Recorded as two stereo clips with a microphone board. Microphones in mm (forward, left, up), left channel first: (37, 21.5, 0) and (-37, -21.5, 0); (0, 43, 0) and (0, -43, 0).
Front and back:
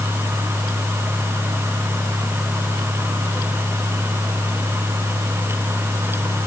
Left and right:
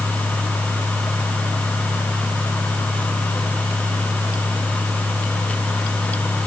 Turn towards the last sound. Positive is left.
No sound to turn to.